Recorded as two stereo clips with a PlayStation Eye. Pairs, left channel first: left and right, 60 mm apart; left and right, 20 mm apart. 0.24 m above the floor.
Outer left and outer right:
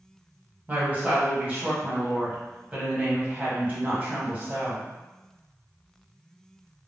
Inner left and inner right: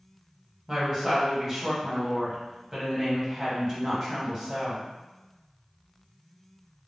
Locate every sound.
0.7 s a woman speaking: 25° right (ahead or behind), 1.1 m